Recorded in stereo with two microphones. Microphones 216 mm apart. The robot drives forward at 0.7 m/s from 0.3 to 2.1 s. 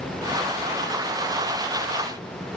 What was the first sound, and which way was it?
Only background noise.